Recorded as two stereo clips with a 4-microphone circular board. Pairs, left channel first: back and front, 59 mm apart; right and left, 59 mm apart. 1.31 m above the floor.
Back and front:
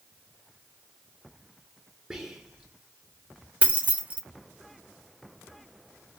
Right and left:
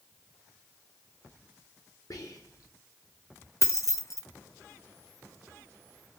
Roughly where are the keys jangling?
Ahead right.